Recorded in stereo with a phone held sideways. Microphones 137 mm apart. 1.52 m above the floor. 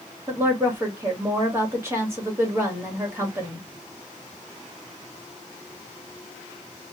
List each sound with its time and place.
0.3 s a woman speaking: 20° right (ahead or behind), 2 m